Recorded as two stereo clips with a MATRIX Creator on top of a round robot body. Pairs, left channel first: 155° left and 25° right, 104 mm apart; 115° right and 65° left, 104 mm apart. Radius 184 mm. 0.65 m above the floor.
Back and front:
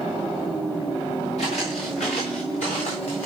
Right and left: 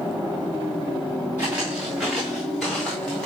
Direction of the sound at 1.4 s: 140° left.